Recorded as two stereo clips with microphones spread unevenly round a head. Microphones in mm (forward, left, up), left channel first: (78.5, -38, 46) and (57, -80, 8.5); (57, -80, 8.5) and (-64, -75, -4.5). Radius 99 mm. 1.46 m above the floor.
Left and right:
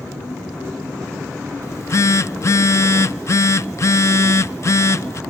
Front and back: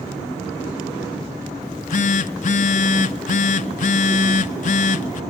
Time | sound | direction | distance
1.6 | a phone buzzing | 5° left | 0.5 m